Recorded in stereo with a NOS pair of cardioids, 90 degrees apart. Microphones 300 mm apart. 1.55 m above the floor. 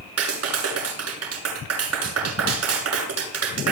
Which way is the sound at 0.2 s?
55° right.